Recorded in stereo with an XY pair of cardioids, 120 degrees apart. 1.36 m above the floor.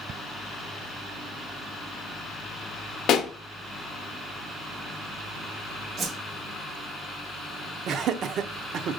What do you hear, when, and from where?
3.1 s a pop: 65° left, 0.5 m
6.0 s a whoosh: 50° right, 0.9 m
7.9 s laughter: 60° right, 0.5 m